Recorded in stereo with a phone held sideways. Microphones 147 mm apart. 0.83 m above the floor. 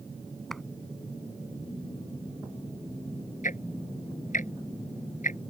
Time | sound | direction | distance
0.5 | a clap | centre (ahead or behind) | ?
3.4 | ticking | 75° left (ahead or behind) | ?